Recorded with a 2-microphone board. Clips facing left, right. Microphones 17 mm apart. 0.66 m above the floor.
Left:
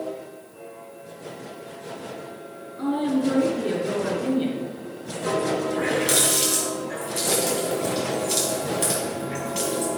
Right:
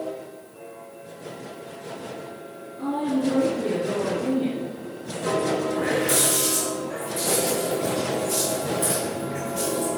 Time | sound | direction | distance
2.8 | a woman speaking | 65° left (ahead or behind) | 3.5 m
5.7 | a running tap | 80° left | 3 m